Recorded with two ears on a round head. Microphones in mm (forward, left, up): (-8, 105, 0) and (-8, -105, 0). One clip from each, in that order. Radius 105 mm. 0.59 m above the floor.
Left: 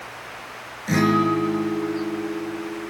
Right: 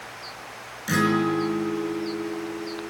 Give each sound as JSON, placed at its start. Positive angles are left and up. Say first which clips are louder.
{"t": 0.9, "sound": "a guitar", "louder": "left 3 dB", "side_deg": -40, "distance_m": 5.0}